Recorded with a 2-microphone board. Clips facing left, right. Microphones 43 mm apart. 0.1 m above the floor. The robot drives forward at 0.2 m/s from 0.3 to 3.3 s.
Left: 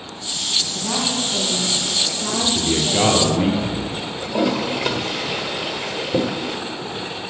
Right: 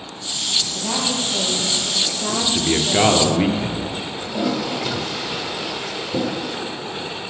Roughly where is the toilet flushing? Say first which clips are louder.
Left 3 dB; left.